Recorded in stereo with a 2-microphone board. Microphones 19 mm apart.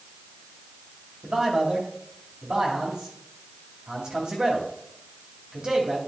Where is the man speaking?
45° right (ahead or behind), 2.5 m.